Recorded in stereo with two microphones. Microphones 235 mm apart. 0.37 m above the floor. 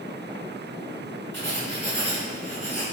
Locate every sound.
1.3 s writing: 50° right (ahead or behind), 3 m